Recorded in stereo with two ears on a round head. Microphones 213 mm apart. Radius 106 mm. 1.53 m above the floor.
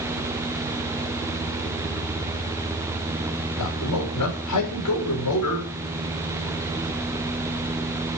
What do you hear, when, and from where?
3.6 s a man speaking: 85° left, 6 m